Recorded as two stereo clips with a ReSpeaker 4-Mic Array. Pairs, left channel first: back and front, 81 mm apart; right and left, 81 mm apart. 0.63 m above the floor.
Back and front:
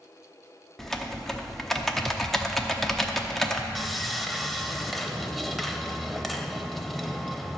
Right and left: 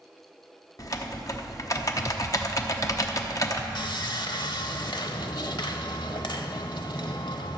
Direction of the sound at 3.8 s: 90° right.